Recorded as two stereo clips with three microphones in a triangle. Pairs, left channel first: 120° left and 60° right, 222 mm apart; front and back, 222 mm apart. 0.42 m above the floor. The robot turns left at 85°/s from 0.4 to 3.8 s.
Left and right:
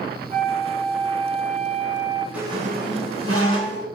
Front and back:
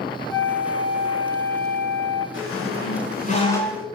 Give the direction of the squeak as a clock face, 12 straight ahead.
11 o'clock.